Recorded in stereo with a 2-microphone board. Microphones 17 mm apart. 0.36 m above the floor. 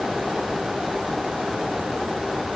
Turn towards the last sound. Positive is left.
No sound to turn to.